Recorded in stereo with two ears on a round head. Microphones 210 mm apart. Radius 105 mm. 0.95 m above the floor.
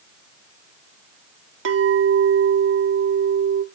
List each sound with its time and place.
1.6 s a clink: 70° right (ahead or behind), 1.6 m